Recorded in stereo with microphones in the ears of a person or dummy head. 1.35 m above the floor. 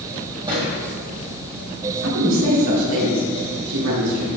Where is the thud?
30° right (ahead or behind), 4 m.